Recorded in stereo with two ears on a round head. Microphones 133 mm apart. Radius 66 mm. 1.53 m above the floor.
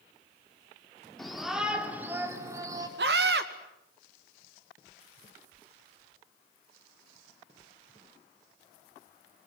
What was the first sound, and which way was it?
A shout, centre (ahead or behind).